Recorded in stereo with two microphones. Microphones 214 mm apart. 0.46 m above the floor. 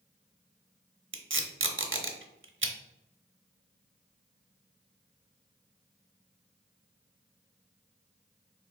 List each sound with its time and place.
1.1 s tape being pulled: 65° right (ahead or behind), 0.5 m